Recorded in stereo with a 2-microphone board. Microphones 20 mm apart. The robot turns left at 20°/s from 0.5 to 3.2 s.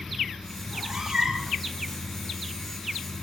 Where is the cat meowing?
15° right (ahead or behind), 4.5 m; by 1.6 s 35° right (ahead or behind), 4.5 m.